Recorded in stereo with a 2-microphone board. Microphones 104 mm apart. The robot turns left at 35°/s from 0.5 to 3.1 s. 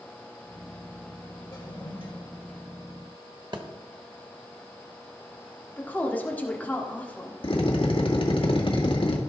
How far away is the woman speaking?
About 1.7 m.